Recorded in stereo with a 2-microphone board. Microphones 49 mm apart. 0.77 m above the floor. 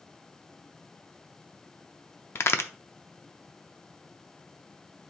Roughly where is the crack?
Left.